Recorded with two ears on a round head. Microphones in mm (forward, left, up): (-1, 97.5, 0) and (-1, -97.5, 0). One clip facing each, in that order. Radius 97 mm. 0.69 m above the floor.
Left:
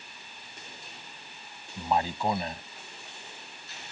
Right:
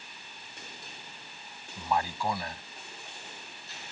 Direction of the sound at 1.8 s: 20° left (ahead or behind).